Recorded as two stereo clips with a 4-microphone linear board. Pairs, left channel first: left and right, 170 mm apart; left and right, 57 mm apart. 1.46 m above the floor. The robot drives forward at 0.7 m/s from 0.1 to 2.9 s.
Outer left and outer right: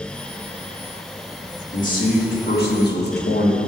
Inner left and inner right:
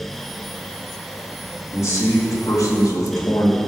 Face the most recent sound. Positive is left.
turn(degrees=65)  # may be behind; listen again after turning